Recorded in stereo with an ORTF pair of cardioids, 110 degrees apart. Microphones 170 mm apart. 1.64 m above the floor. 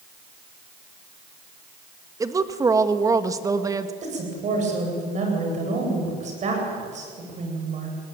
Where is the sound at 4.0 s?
45° right, 9 m.